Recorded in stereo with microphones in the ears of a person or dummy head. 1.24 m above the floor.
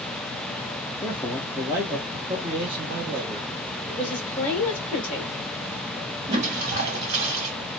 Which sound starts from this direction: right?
A toilet flushing, at 6.3 s.